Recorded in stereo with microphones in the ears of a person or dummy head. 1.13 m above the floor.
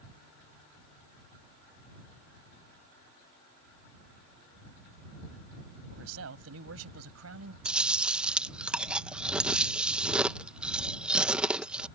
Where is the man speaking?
80° right; by 7.5 s 90° right.